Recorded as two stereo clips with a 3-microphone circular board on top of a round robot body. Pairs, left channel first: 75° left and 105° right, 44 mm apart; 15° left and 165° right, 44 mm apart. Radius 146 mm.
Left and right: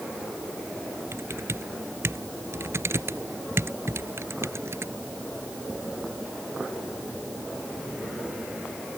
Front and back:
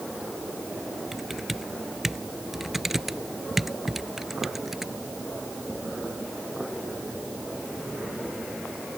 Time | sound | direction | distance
1.1 | typing on a keyboard | 80° right | ?